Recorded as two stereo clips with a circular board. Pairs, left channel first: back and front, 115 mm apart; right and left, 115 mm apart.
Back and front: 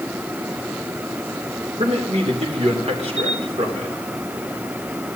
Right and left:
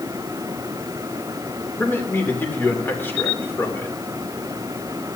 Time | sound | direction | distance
1.8 | a man speaking | 20° right | 3 m
3.2 | a camera shutter | 130° right | 6.5 m